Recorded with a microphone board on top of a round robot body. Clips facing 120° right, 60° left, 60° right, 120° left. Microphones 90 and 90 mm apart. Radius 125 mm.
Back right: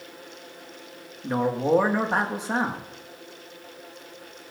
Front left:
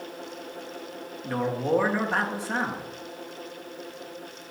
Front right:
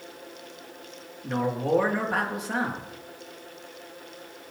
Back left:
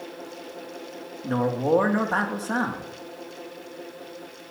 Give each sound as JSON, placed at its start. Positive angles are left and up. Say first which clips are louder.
{"t": 1.2, "sound": "a man speaking", "louder": "back right 3 dB, back left 3 dB", "azimuth_deg": 175, "distance_m": 2.0}